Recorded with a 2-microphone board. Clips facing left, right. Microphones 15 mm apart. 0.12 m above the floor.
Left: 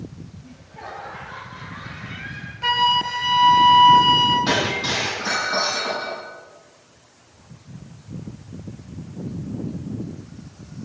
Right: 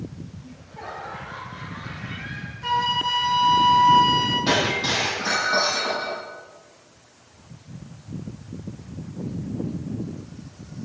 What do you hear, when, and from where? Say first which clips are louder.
0.4 s laughter: left 1 dB; 15° left (ahead or behind), 3 m; by 2.5 s 20° left (ahead or behind), 2.5 m
2.6 s a flute: left 4 dB; 60° left (ahead or behind), 1.3 m
4.5 s breaking glass: even; 25° left (ahead or behind), 3 m